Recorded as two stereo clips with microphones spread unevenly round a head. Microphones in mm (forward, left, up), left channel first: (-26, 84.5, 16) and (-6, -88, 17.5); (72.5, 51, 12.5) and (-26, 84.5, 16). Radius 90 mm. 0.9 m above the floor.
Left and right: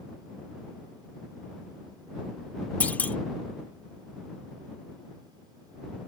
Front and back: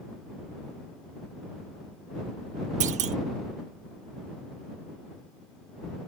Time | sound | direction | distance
2.8 | a clunk | straight behind | ?